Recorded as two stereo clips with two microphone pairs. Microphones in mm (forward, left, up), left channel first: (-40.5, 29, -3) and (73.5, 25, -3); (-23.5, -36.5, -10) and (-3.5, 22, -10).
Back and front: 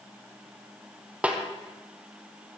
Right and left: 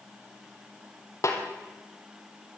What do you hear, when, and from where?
1.2 s a snare drum: 80° right, 1.9 m